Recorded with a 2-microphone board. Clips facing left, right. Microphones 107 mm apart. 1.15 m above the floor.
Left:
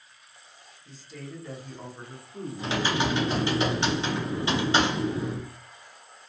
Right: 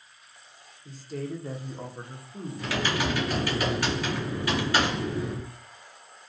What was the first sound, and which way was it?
A woman speaking, 50° right (ahead or behind).